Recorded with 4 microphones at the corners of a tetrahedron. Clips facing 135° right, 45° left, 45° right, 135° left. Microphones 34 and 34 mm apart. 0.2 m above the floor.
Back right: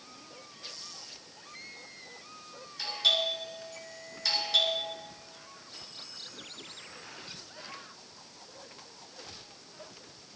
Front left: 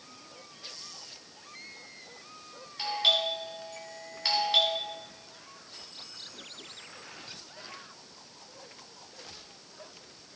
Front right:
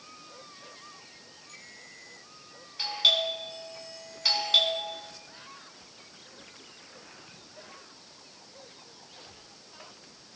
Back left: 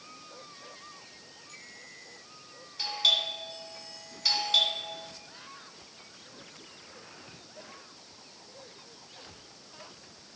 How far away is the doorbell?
About 2.5 m.